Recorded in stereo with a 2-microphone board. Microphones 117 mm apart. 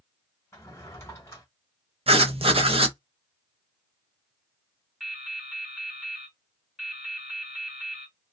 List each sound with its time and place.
0.5 s a drawer: 25° left (ahead or behind), 1.4 m
2.1 s writing: 55° right (ahead or behind), 0.6 m
5.0 s dripping: 5° right (ahead or behind), 1.0 m